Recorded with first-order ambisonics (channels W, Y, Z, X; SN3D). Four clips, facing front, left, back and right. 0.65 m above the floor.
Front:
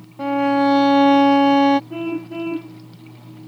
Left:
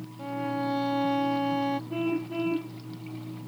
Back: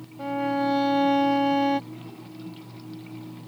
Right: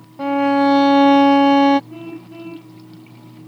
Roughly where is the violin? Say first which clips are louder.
Right 15 dB, front 8 dB; ahead right.